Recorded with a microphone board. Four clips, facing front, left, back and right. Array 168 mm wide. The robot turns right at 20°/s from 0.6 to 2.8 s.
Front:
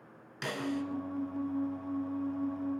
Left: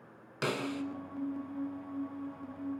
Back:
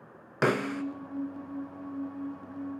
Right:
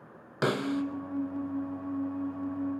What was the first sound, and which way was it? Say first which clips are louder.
A snare drum: right 6 dB, back 7 dB; 155° right.